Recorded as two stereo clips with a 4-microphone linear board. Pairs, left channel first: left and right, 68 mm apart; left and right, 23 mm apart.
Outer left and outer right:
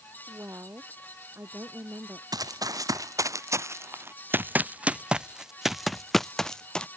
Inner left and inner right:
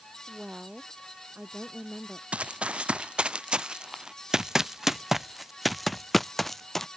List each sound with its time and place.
0.3 s a woman speaking: 35° right (ahead or behind)
2.3 s running footsteps: 65° right (ahead or behind); by 6.9 s 15° left (ahead or behind)